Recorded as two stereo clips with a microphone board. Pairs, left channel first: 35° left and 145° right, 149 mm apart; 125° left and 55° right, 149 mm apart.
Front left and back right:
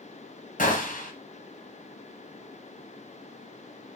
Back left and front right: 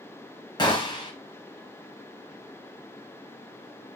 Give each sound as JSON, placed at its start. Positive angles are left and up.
{"t": 0.6, "sound": "a gunshot", "azimuth_deg": 65, "distance_m": 1.0}